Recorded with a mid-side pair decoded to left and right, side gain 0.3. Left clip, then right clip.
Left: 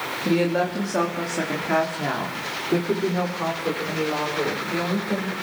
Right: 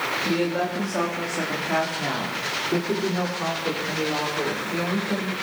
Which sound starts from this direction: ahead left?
A woman speaking, at 0.2 s.